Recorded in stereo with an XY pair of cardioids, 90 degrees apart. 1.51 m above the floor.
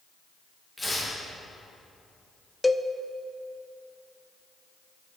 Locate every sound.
0.8 s tearing paper: 20° left, 3 m
2.6 s a cowbell: 10° left, 0.5 m